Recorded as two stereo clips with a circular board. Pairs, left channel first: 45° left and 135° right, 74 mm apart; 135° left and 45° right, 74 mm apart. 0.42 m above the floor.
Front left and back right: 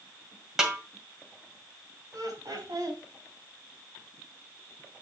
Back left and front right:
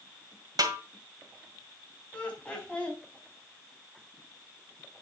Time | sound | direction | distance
0.6 | a snare drum | 55° right | 1.9 m
2.1 | laughter | 155° right | 3.5 m